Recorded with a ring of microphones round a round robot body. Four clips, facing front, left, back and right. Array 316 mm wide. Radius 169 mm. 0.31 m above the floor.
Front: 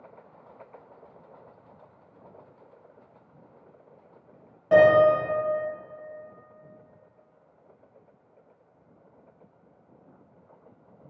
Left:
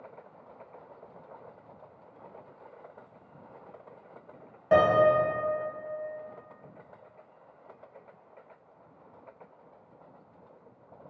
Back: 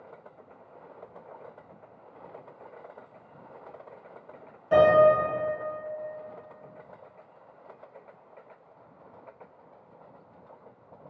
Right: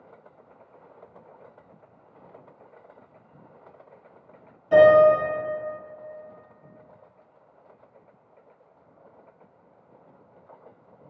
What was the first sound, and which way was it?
A piano, 65° left.